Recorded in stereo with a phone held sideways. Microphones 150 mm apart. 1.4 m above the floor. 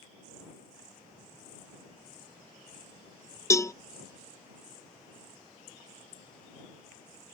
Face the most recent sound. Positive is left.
turn(degrees=20)  # may be behind; listen again after turning